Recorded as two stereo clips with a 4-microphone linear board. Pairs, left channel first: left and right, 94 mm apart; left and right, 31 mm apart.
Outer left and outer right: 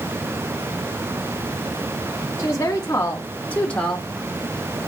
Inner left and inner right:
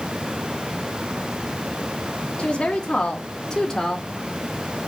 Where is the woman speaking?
30° left (ahead or behind), 1.0 m; by 4.1 s 5° left (ahead or behind), 0.8 m.